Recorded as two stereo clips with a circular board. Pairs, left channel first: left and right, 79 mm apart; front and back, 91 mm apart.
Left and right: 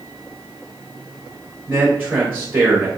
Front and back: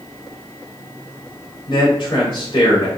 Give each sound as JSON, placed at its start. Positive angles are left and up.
{"t": 1.7, "sound": "a man speaking", "azimuth_deg": -30, "distance_m": 2.5}